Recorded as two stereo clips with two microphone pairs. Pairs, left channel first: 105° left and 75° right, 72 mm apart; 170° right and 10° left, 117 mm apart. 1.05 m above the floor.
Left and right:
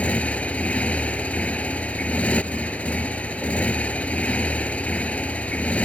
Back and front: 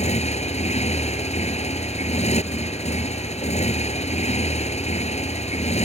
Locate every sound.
0.0 s a motorcycle: 175° left